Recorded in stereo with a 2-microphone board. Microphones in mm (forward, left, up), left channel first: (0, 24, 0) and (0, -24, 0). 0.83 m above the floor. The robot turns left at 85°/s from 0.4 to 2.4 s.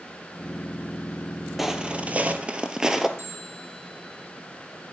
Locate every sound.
1.6 s footsteps: 5° right (ahead or behind), 1.1 m; by 3.1 s 10° right (ahead or behind), 0.8 m
3.2 s a bell: 65° right (ahead or behind), 5.5 m